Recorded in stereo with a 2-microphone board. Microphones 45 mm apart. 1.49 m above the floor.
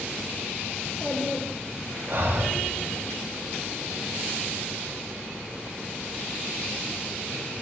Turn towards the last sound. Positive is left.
turn(degrees=-50)  # may be behind; listen again after turning